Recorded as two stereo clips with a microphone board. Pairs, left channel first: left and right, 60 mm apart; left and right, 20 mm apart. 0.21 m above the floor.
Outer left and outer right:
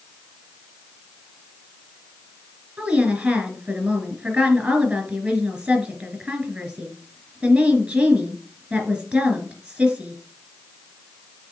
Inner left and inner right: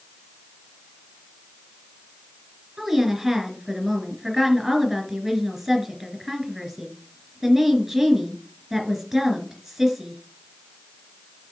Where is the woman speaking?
25° right (ahead or behind), 3 m.